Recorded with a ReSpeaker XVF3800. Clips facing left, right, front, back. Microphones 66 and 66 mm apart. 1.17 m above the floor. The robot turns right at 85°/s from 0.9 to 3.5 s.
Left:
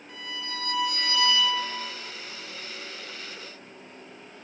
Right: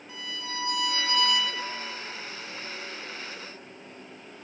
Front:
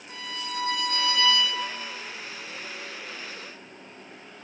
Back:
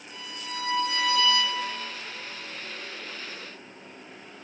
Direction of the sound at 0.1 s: Straight ahead.